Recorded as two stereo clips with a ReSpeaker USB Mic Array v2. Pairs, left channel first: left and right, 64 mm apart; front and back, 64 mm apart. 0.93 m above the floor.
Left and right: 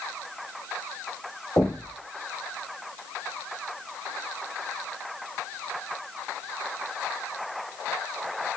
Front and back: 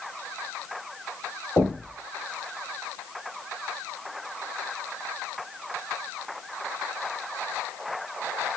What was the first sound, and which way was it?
Knocking, 40° left.